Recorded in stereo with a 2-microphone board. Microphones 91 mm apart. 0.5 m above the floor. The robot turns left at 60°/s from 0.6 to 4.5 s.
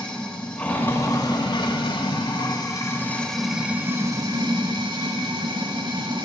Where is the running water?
165° left, 1.3 m; by 6.2 s 65° right, 1.3 m.